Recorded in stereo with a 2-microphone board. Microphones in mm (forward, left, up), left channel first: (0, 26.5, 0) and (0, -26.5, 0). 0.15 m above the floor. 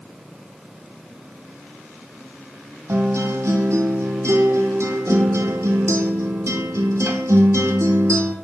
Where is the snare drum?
I don't hear a snare drum.